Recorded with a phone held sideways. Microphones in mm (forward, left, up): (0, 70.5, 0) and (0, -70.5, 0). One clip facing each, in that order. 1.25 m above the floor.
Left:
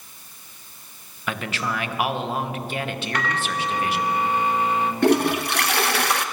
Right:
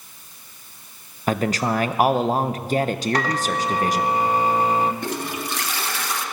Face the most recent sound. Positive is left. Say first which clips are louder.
# left 9 dB
turn(degrees=70)  # may be behind; listen again after turning